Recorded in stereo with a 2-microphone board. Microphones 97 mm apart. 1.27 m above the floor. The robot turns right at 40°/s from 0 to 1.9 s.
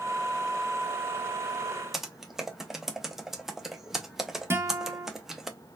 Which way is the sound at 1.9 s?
5° right (ahead or behind).